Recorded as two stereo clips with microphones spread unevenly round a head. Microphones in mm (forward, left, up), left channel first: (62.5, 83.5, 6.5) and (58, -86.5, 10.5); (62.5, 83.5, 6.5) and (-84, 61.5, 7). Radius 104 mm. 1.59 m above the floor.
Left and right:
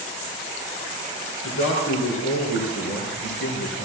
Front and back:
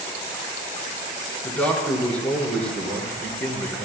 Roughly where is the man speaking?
Left.